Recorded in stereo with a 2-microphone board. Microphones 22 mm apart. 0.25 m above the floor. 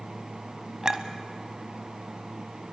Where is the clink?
30° right (ahead or behind), 1.2 m.